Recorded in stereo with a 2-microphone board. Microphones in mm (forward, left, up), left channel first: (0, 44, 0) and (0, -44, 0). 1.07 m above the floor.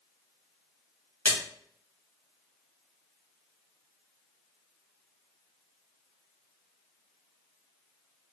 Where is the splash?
25° left (ahead or behind), 1.7 m.